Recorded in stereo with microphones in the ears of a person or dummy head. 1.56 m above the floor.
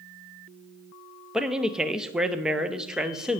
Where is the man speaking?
5° right (ahead or behind), 0.7 m.